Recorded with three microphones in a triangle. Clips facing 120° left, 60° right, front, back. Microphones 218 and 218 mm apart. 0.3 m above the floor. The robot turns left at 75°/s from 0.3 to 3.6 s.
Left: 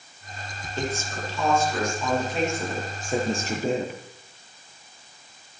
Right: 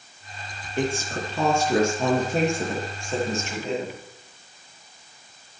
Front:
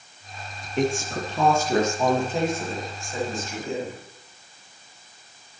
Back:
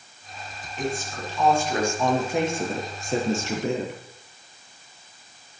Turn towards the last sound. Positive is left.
turn(degrees=160)